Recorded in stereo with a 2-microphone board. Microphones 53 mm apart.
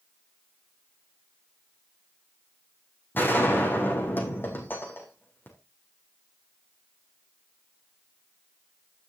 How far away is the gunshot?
About 5.5 m.